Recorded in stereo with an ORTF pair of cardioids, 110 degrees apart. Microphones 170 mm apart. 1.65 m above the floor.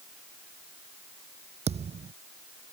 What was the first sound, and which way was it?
A thud, 40° right.